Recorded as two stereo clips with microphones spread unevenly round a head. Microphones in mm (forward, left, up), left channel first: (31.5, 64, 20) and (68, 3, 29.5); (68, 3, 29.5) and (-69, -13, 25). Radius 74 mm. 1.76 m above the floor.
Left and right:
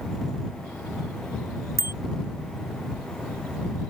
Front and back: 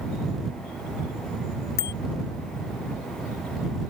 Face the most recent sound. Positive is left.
turn(degrees=-10)